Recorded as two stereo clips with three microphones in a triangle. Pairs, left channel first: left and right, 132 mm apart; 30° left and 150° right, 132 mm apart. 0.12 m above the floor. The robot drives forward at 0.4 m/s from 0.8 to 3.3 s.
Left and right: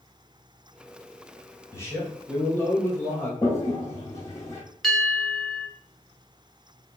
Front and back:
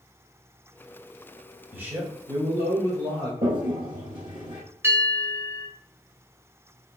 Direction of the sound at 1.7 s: 145° left.